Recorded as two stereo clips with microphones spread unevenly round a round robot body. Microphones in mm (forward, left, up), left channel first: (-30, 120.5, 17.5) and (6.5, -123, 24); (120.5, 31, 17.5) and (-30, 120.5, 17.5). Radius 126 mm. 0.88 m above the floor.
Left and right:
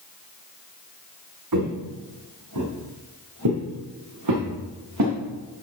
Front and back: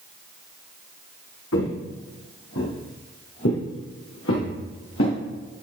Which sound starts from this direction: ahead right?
Footsteps, at 1.5 s.